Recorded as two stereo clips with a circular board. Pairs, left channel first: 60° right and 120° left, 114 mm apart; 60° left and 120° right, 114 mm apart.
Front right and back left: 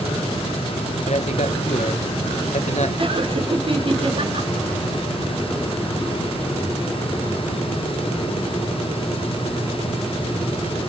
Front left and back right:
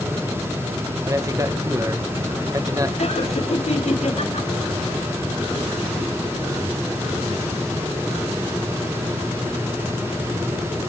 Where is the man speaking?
60° right, 1.6 m.